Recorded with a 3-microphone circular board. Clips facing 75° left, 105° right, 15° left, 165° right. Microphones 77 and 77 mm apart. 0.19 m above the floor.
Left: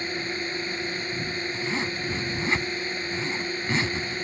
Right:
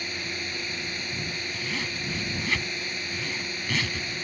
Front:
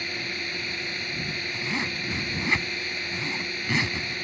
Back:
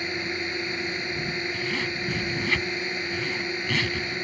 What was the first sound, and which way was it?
A drone, 130° left.